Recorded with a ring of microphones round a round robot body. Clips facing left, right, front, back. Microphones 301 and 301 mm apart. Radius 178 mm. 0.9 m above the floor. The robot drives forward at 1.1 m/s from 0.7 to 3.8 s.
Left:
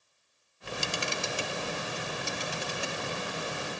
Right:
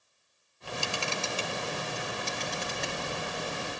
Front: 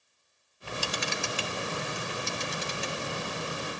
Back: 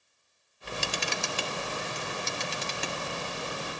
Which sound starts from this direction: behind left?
A camera shutter, at 0.6 s.